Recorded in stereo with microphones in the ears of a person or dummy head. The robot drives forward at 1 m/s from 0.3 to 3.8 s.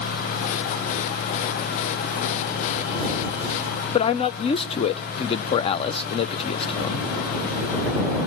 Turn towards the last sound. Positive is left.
turn(degrees=30)  # may be behind; listen again after turning